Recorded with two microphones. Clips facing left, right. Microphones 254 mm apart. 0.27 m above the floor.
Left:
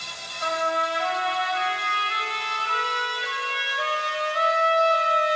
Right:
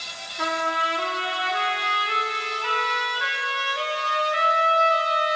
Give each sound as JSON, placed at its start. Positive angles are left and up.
{"t": 0.4, "sound": "a trumpet", "side_deg": -90, "distance_m": 9.0}